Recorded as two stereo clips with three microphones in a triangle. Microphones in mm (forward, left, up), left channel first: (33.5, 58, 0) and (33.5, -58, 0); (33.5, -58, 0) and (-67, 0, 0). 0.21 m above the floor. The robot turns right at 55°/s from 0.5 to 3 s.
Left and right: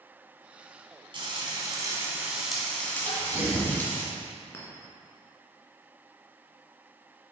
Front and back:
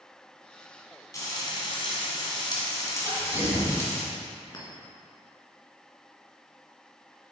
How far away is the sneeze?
About 2.5 m.